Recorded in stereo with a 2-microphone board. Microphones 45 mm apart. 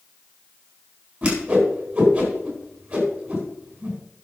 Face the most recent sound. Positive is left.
turn(degrees=-20)  # may be behind; listen again after turning